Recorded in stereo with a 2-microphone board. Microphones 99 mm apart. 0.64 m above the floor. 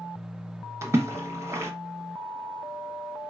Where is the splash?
30° right (ahead or behind), 0.7 m.